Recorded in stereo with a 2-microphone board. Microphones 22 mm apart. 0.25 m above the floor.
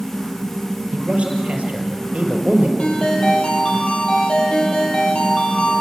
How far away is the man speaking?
About 5 m.